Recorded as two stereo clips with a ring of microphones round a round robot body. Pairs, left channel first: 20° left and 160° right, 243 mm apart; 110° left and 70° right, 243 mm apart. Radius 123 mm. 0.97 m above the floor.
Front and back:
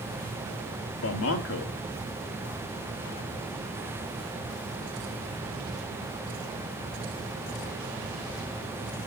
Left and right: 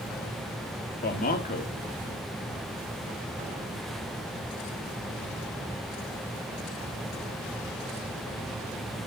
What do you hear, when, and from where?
1.0 s a man speaking: 55° left, 1.8 m